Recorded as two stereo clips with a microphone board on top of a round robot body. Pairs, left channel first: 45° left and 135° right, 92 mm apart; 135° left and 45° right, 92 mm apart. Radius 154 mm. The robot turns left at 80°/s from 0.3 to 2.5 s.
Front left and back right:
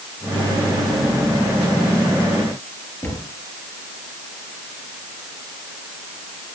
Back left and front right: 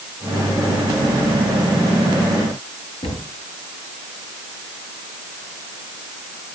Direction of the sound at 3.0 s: 115° left.